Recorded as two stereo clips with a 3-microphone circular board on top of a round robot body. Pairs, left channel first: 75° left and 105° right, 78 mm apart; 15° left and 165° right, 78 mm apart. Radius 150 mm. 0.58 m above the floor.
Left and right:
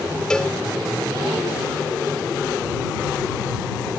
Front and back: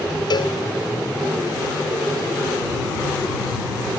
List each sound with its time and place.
0.3 s a cowbell: 5° right